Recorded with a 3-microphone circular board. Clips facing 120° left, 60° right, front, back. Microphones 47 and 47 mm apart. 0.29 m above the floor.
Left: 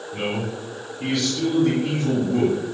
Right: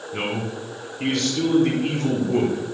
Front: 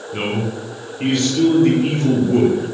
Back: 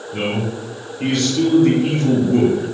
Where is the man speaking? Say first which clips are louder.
Even, even; 55° right, 3.5 m.